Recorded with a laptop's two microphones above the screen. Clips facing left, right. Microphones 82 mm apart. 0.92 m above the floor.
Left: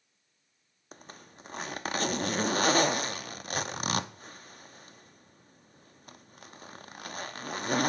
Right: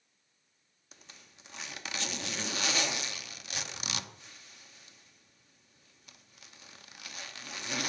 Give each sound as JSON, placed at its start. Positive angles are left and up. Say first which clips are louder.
{"t": 0.9, "sound": "a zipper", "louder": "left 9 dB", "side_deg": 40, "distance_m": 0.7}